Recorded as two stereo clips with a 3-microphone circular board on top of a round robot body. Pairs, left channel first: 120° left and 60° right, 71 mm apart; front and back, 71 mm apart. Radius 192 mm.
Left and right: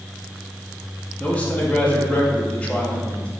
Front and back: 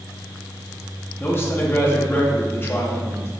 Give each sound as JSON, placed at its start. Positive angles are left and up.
{"t": 1.2, "sound": "a man speaking", "azimuth_deg": 50, "distance_m": 1.3}